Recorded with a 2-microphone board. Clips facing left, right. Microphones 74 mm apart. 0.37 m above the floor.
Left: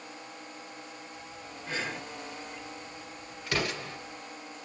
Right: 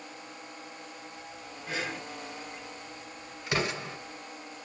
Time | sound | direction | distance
1.7 | breathing | 5° right (ahead or behind) | 1.0 m
3.5 | an explosion | 20° right (ahead or behind) | 1.9 m